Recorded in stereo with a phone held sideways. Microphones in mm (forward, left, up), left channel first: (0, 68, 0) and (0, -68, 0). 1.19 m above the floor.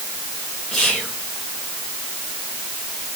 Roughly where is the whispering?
Centre.